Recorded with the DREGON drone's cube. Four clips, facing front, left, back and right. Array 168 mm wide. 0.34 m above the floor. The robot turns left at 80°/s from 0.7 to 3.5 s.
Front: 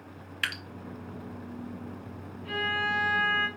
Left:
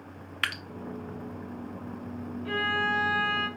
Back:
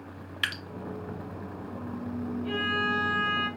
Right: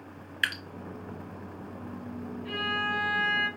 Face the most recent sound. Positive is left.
turn(degrees=15)